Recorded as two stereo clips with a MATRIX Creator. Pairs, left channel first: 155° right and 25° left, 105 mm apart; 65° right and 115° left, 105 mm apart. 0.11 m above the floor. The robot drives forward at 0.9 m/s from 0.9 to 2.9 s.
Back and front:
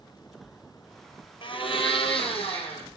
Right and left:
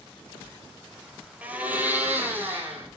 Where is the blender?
175° right, 1.0 m.